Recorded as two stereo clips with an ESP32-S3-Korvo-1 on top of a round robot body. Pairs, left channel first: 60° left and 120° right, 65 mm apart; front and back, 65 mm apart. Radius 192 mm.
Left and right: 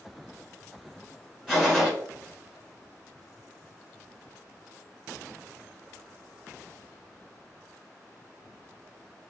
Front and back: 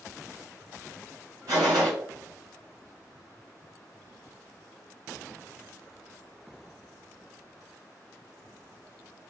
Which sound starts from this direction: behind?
A gunshot, at 1.5 s.